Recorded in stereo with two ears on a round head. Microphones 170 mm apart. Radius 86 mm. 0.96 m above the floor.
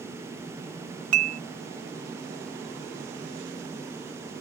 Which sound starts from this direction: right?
Dishes clattering, at 1.1 s.